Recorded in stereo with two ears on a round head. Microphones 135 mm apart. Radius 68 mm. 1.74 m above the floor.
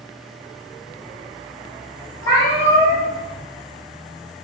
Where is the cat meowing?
30° left (ahead or behind), 1.3 m.